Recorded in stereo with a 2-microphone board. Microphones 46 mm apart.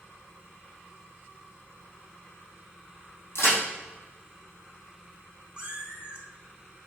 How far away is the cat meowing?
About 3 m.